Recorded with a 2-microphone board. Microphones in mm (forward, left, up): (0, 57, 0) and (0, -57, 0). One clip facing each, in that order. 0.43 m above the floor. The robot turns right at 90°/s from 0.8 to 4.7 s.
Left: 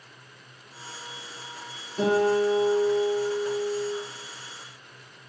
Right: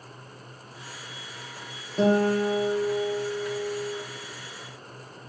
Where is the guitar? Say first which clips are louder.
Even; 30° right (ahead or behind), 1.0 m; by 4.0 s 30° left (ahead or behind), 1.0 m.